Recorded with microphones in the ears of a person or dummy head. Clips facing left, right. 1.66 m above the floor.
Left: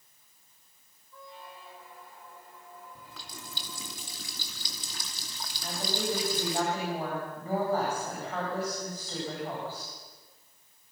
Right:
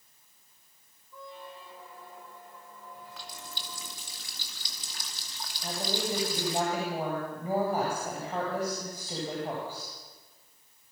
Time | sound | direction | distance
1.1 | a squeak | 75° right (ahead or behind) | 3.5 m
3.0 | a running tap | 65° left (ahead or behind) | 2.5 m
5.6 | a woman speaking | 10° right (ahead or behind) | 8 m